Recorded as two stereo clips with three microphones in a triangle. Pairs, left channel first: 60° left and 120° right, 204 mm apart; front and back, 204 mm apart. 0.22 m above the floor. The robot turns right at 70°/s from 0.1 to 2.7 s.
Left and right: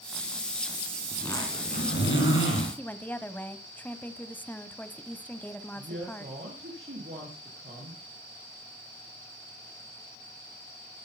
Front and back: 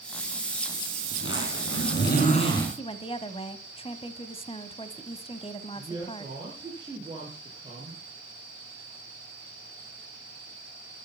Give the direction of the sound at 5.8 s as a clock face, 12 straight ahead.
4 o'clock.